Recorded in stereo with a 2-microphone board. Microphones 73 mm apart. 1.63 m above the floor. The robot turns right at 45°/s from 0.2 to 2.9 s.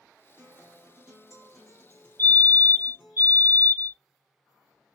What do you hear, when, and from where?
0.4 s a guitar: 15° right (ahead or behind), 1.2 m; by 3.2 s 25° left (ahead or behind), 1.2 m
2.2 s a fire alarm: 35° left, 1.7 m; by 4.0 s 65° left, 1.7 m